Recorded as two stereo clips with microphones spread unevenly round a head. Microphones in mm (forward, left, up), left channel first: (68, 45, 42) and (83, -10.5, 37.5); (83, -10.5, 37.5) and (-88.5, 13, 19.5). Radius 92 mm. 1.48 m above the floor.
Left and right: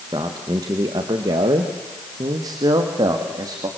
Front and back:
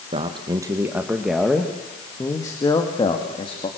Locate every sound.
0.1 s a man speaking: 130° right, 1.4 m; by 3.7 s 70° right, 2.5 m